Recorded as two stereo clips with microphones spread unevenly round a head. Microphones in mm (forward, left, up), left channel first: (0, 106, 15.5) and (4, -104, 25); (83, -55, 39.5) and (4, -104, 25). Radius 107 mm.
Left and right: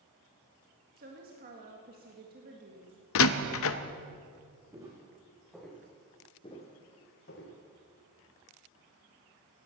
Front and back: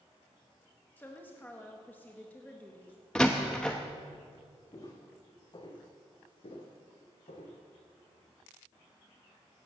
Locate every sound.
1.0 s a woman speaking: 45° right, 1.8 m
3.1 s a door slam: 120° left, 0.7 m
4.7 s footsteps: 15° right, 4 m; by 7.6 s 55° left, 3 m